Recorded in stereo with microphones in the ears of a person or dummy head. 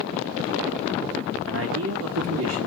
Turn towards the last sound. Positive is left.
turn(degrees=-85)